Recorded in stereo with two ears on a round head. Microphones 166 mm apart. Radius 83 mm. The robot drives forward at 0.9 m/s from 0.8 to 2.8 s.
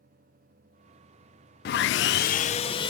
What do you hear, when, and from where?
1.6 s sawing: 55° left (ahead or behind), 0.5 m; by 2.9 s 30° left (ahead or behind), 0.9 m